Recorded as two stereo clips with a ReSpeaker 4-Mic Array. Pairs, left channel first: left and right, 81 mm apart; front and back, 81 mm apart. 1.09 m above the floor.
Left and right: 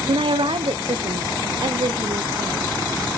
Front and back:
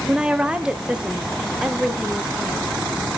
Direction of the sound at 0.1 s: 100° right.